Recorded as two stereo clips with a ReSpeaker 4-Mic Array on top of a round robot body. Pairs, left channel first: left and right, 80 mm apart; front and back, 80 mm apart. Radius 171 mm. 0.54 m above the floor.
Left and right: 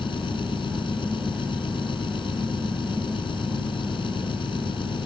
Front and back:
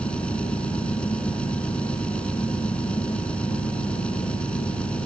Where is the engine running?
80° left.